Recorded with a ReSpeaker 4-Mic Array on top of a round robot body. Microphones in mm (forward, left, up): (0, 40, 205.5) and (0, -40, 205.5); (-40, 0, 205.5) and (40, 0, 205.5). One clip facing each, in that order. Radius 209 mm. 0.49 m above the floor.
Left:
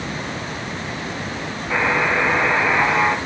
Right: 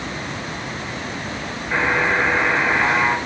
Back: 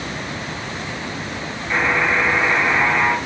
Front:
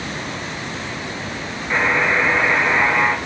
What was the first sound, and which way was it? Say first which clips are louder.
A buzzer: even, front 1 dB; 85° left.